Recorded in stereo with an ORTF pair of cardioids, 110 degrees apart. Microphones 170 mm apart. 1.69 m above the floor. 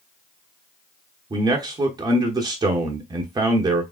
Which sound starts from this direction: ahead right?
A man speaking, at 1.3 s.